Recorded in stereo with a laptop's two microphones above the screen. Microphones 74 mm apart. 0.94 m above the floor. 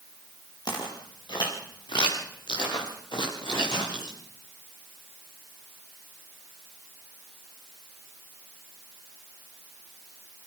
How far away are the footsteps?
About 6 m.